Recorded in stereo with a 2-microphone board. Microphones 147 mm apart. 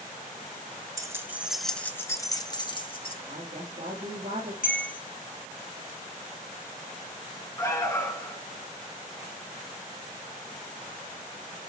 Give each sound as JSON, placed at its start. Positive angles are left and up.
{"t": 1.0, "sound": "keys jangling", "side_deg": -20, "distance_m": 1.0}
{"t": 3.2, "sound": "a woman speaking", "side_deg": -55, "distance_m": 3.0}
{"t": 4.6, "sound": "a bell", "side_deg": 70, "distance_m": 2.5}
{"t": 7.6, "sound": "an alarm", "side_deg": 20, "distance_m": 1.5}